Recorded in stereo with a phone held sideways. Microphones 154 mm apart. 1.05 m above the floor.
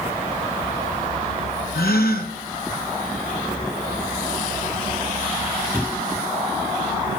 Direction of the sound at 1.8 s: 80° left.